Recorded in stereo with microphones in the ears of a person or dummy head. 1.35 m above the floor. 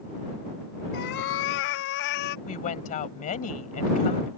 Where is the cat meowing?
60° left (ahead or behind); by 2.4 s 50° left (ahead or behind).